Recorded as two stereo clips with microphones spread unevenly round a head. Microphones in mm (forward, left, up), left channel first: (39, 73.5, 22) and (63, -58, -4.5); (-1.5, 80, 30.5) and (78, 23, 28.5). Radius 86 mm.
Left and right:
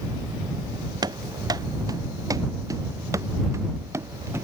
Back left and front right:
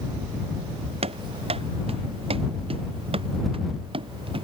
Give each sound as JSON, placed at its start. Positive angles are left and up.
{"t": 1.0, "sound": "running footsteps", "azimuth_deg": -20}